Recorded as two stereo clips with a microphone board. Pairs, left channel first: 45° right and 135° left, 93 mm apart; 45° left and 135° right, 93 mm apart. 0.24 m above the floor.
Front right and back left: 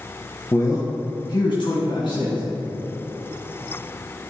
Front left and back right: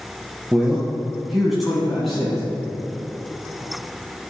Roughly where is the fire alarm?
I don't hear a fire alarm.